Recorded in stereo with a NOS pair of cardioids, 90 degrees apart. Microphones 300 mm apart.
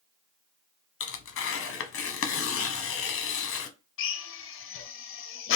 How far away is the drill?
About 0.5 m.